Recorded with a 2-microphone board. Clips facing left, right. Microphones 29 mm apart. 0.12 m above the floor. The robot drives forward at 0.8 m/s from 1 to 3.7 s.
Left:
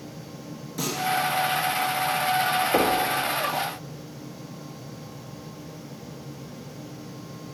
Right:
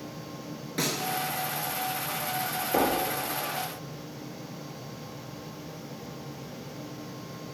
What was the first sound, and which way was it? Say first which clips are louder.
A snare drum: left 2 dB; 45° right (ahead or behind).